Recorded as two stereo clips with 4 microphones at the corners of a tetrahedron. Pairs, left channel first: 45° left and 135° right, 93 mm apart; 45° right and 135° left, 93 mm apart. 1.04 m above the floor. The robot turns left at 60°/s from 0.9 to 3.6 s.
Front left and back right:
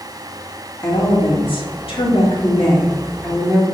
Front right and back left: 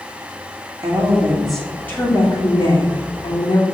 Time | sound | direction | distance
0.8 | a woman speaking | 90° left | 2.5 m